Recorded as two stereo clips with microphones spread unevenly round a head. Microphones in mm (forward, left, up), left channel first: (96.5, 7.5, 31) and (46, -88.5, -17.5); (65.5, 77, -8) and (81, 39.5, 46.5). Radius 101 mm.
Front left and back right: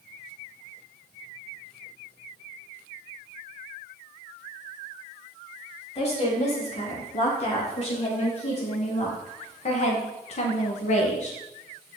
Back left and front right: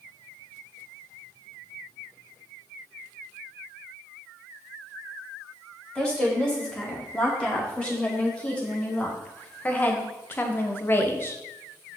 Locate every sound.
6.0 s a woman speaking: 40° left, 4 m; by 11.4 s 75° left, 1.5 m